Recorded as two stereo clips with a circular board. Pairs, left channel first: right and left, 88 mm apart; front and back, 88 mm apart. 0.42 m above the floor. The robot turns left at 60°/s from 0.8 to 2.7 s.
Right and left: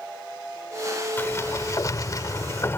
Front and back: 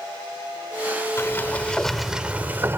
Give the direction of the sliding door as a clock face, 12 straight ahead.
1 o'clock.